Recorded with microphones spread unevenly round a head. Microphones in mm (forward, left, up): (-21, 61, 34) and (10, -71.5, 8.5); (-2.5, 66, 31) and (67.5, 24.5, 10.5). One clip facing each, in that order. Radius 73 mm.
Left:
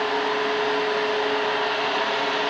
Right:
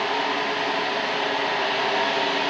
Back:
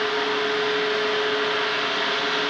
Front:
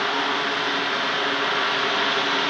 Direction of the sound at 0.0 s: 15° right.